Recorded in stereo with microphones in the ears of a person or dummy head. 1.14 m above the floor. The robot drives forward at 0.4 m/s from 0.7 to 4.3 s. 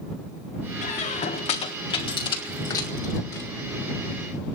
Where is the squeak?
40° left (ahead or behind), 0.9 m; by 3.5 s 20° left (ahead or behind), 1.7 m.